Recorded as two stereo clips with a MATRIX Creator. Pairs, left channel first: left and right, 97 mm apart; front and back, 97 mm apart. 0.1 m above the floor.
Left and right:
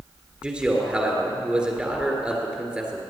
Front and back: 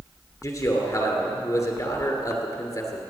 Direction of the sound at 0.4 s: 20° right.